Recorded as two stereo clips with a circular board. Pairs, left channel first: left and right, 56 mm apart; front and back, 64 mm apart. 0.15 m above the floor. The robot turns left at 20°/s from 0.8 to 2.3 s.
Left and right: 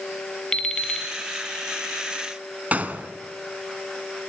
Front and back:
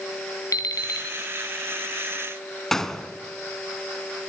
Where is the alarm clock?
15° left, 1.7 m; by 1.1 s 10° left, 1.7 m.